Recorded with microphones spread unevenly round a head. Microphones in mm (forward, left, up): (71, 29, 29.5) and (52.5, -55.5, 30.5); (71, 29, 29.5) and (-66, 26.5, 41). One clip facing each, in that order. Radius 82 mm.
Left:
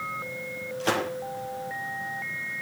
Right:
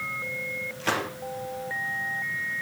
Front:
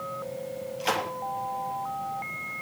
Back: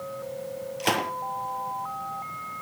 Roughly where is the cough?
No cough in this recording.